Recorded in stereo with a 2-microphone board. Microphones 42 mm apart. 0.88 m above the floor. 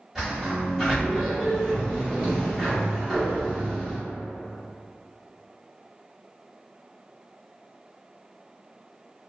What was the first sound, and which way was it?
A sliding door, 10° right (ahead or behind).